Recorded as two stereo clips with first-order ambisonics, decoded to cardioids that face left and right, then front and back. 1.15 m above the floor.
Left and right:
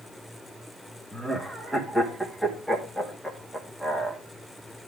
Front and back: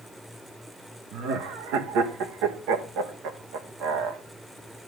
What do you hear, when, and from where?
1.1 s laughter: 175° left, 1.5 m